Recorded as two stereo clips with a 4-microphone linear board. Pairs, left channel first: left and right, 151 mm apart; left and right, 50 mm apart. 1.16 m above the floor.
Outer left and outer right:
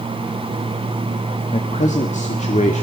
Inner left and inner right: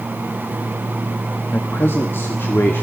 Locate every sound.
1.5 s a man speaking: 50° left (ahead or behind), 1.6 m